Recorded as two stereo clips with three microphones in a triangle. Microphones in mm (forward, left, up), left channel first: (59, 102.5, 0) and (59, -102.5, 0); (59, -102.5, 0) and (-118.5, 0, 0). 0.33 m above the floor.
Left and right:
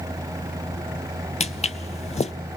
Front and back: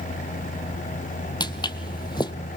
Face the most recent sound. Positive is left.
turn(degrees=35)